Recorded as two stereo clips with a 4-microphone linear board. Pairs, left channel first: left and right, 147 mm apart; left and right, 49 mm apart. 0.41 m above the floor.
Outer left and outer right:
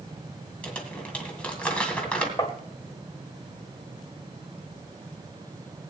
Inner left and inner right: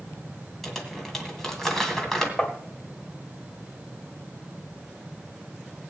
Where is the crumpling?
10° left (ahead or behind), 2.5 m.